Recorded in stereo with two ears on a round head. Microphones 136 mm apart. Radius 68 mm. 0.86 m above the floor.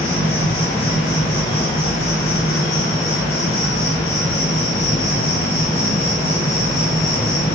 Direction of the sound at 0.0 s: 35° left (ahead or behind).